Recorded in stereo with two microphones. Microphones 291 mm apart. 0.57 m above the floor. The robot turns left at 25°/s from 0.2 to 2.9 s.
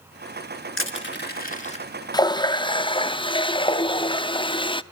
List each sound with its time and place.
0.8 s crushing: 45° left (ahead or behind), 2.5 m; by 1.9 s 20° left (ahead or behind), 2.5 m
2.1 s a running tap: 15° left (ahead or behind), 0.5 m